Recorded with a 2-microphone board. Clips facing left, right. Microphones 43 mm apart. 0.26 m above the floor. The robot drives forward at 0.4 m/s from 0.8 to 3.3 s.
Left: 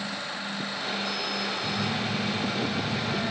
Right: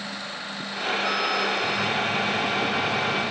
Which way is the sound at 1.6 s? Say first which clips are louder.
Right 5 dB; 30° left (ahead or behind).